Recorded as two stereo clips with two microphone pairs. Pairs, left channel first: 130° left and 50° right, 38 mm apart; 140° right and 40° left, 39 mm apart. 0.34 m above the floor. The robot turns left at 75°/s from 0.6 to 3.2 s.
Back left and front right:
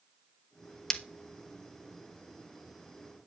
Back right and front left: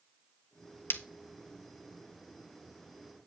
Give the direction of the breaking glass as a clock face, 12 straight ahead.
5 o'clock.